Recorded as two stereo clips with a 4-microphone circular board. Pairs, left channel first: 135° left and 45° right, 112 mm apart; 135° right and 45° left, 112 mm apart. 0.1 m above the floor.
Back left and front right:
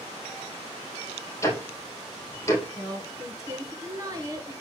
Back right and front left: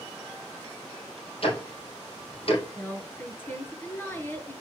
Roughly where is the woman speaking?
Right.